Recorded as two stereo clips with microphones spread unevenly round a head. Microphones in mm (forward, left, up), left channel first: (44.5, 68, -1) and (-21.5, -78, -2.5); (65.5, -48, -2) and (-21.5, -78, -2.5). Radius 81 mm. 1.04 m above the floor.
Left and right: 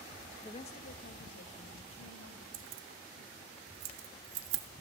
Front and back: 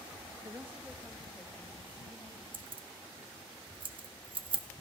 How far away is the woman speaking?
About 0.6 m.